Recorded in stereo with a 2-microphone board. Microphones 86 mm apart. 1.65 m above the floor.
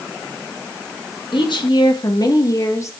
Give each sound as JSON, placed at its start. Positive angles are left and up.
{"t": 1.3, "sound": "a woman speaking", "side_deg": 70, "distance_m": 2.5}